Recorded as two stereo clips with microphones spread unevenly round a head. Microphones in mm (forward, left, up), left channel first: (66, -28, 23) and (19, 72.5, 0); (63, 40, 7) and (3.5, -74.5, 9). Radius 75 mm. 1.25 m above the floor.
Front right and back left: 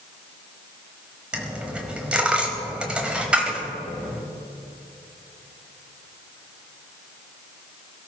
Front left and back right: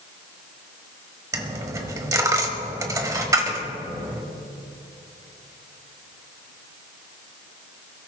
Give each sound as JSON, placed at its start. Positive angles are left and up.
{"t": 1.3, "sound": "a dropped coin", "azimuth_deg": -150, "distance_m": 1.1}